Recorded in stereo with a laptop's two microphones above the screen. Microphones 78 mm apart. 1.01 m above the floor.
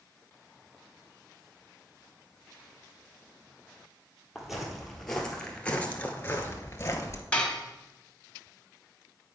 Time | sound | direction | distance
4.3 | footsteps | 5° right (ahead or behind) | 1.8 m
7.3 | dishes clattering | 15° left (ahead or behind) | 1.4 m